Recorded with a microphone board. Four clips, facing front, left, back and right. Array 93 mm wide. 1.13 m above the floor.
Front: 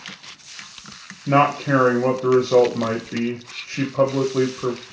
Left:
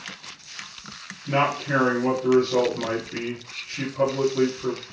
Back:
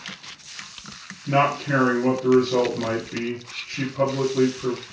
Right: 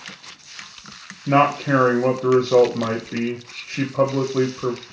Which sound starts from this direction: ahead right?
A man speaking, at 1.3 s.